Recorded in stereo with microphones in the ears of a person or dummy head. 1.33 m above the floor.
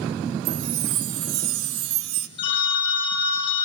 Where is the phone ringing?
30° left (ahead or behind), 1.4 m.